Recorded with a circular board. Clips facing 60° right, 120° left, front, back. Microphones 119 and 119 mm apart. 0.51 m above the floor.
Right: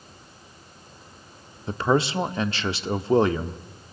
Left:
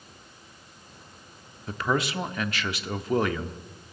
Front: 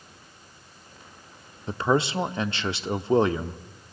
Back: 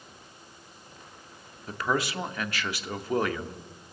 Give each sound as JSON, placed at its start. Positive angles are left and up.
{"t": 1.7, "sound": "a man speaking", "azimuth_deg": -35, "distance_m": 0.9}